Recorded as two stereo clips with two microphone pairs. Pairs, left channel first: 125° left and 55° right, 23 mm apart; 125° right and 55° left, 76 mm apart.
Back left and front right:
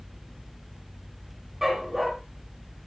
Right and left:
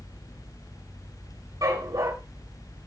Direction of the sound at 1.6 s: 25° left.